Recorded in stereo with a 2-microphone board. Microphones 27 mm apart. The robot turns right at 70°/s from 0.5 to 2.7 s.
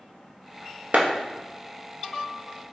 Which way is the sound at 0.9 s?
65° right (ahead or behind).